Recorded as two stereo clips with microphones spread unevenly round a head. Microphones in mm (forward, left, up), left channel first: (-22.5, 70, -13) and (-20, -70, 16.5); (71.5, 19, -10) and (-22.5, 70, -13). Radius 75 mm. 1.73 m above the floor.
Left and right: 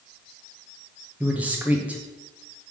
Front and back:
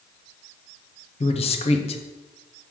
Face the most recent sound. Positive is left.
turn(degrees=-15)